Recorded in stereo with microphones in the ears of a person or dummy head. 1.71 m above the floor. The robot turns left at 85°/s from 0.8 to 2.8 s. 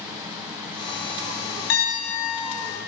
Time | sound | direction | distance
1.7 | a piano | 90° left | 3 m